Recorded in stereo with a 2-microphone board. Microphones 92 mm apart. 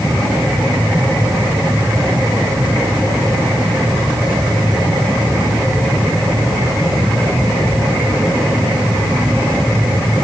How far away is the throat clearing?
No throat clearing in this recording.